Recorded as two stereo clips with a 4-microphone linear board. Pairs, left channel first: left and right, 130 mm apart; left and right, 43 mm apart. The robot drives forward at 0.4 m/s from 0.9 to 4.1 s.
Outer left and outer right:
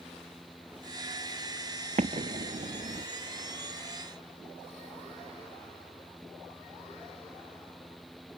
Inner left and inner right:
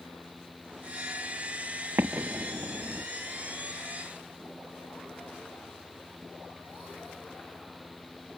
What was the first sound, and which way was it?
An explosion, 65° right (ahead or behind).